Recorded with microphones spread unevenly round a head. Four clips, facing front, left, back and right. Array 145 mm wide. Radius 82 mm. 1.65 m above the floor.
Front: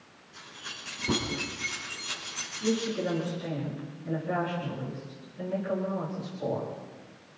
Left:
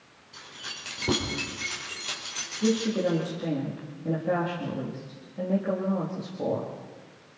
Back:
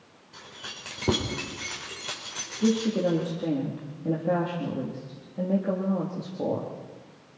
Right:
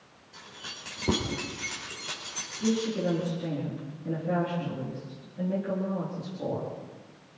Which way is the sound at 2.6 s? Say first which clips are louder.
Left 3 dB, back 5 dB; 160° left.